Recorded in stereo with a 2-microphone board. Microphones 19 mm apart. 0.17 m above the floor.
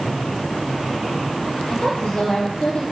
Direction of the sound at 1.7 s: 65° left (ahead or behind).